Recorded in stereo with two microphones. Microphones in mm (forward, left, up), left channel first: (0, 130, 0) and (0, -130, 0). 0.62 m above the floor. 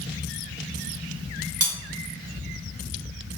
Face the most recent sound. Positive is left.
turn(degrees=-65)  # may be behind; listen again after turning